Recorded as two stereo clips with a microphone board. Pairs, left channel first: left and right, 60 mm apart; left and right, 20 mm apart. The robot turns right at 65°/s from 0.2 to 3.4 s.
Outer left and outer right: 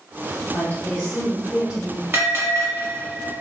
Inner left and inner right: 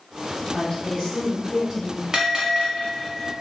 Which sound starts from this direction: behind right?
A bell, at 2.1 s.